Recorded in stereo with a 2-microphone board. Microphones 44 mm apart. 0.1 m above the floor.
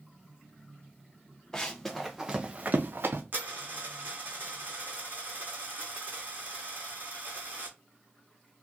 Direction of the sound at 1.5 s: 15° left (ahead or behind).